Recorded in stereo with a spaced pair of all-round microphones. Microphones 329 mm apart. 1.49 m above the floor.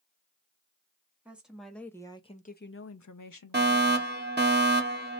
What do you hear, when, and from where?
1.2 s a woman speaking: 5° right (ahead or behind), 1.2 m; by 4.1 s 65° left (ahead or behind), 0.8 m
3.5 s a fire alarm: 30° right (ahead or behind), 1.2 m